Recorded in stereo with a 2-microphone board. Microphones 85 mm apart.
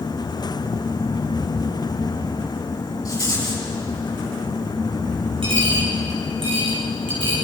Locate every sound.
3.0 s a rattle: 45° left (ahead or behind), 7.5 m
5.4 s a dropped coin: 85° right, 6 m